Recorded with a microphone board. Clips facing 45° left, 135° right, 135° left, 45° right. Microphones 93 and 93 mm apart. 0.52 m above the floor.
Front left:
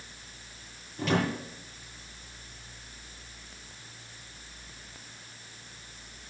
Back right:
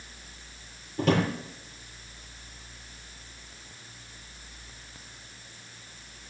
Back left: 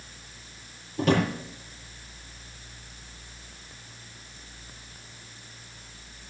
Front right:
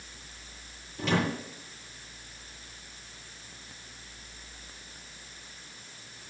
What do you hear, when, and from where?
1.0 s a drawer: 175° left, 6.5 m